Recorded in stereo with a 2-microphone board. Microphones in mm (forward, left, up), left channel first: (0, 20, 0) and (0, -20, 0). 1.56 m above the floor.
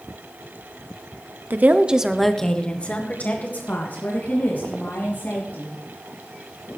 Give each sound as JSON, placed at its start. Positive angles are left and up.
{"t": 1.5, "sound": "a woman speaking", "side_deg": -50, "distance_m": 1.0}